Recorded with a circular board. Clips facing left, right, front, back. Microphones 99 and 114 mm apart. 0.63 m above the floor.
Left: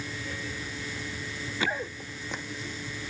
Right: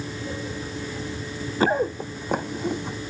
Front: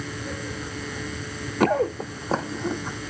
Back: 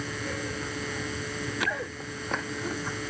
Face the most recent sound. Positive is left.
turn(degrees=-75)